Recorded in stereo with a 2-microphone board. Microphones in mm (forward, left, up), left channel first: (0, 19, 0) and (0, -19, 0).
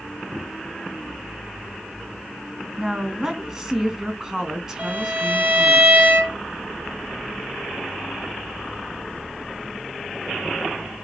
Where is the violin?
40° right (ahead or behind), 4.5 m.